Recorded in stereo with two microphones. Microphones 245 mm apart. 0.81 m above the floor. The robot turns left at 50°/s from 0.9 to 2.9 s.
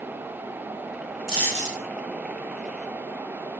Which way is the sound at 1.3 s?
20° left (ahead or behind).